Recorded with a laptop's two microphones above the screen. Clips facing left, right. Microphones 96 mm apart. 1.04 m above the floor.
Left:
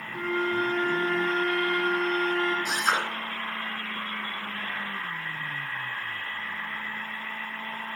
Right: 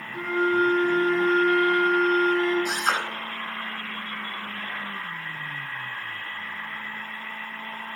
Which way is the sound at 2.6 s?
55° right (ahead or behind).